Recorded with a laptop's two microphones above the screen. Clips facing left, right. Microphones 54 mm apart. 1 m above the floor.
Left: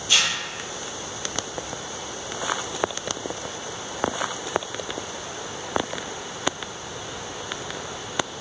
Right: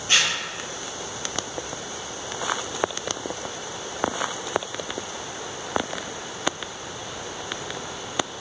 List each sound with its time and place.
0.1 s tearing paper: 35° right (ahead or behind), 0.6 m